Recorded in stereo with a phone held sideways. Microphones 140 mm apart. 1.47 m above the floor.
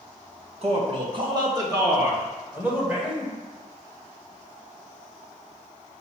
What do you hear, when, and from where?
0.6 s a man speaking: 45° right (ahead or behind), 1.4 m; by 3.3 s 10° right (ahead or behind), 2 m